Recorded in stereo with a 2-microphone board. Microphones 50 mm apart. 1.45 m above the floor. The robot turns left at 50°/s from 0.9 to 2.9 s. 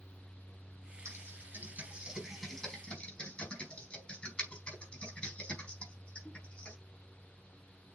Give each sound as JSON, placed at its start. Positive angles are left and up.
{"t": 1.1, "sound": "typing on a keyboard", "side_deg": -65, "distance_m": 4.5}